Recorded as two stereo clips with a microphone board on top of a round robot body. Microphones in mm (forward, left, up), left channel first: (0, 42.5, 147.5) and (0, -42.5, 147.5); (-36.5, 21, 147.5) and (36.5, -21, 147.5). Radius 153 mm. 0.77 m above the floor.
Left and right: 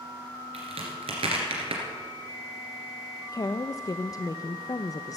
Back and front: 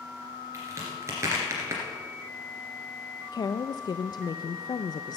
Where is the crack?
85° right, 2 m.